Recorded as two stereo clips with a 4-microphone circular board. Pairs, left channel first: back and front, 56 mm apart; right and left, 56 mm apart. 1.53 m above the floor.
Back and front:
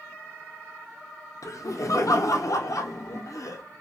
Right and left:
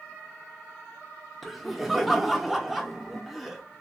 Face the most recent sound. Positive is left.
turn(degrees=180)